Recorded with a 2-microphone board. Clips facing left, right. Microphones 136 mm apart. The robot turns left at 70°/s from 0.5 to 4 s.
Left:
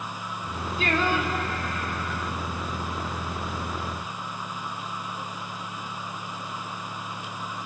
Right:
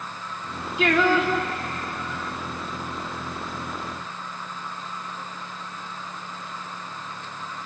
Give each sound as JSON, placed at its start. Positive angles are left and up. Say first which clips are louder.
{"t": 0.8, "sound": "singing", "louder": "right 6 dB", "azimuth_deg": -70, "distance_m": 2.5}